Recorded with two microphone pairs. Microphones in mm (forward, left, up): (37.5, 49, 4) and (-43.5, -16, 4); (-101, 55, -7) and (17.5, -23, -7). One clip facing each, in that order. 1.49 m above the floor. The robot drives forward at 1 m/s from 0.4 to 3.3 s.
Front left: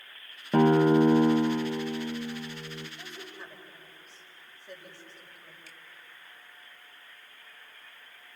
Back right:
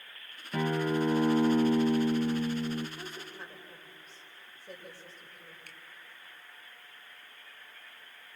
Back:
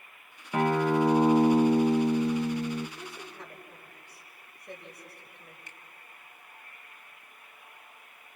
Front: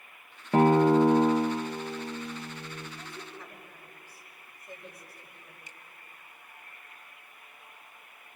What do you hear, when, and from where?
0.5 s a guitar: 20° left, 0.9 m; by 2.9 s 170° left, 1.7 m
3.0 s a woman speaking: 170° left, 5.5 m
5.7 s a finger snap: straight behind, 1.4 m